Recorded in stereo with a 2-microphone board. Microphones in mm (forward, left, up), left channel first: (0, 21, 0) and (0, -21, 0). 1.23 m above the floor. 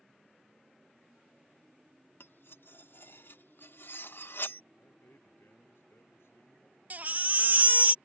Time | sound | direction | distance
2.2 | cutlery clinking | 60° left (ahead or behind) | ?
4.8 | a man speaking | 75° left (ahead or behind) | ?
6.9 | a baby crying | 40° right (ahead or behind) | ?